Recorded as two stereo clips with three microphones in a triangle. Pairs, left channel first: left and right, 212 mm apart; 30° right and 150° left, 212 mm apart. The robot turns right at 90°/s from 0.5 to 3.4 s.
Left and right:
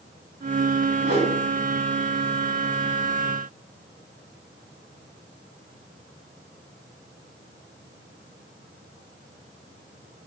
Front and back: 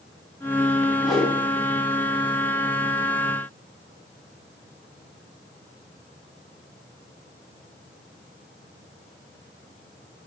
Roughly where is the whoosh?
Behind right.